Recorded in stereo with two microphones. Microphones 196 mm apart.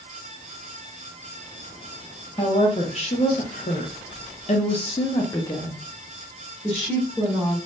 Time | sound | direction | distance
2.4 | a woman speaking | 30° left (ahead or behind) | 1.4 m